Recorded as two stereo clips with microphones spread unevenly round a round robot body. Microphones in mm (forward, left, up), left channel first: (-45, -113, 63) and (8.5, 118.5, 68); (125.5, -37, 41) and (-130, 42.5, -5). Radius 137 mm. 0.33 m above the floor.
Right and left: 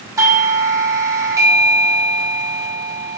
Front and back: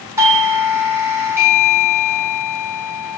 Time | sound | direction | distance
0.2 | a doorbell | 135° left | 1.4 m